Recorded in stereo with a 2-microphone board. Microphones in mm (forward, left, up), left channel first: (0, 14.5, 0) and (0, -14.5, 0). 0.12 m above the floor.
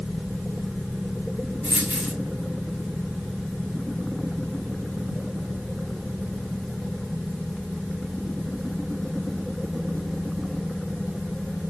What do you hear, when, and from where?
1.6 s a dropped coin: 70° right (ahead or behind), 5 m